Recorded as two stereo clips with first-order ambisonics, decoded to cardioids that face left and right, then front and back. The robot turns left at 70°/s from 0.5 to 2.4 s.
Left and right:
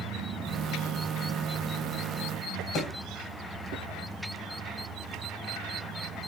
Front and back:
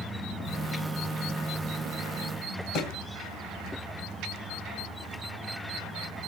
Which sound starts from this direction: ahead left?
A thud, at 2.8 s.